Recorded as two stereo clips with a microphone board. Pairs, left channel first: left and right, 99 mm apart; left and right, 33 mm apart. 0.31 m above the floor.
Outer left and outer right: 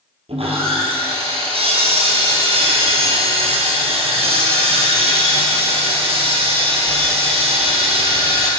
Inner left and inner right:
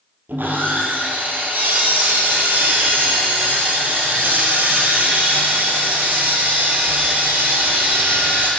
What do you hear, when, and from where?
0.3 s sawing: 85° right, 2.5 m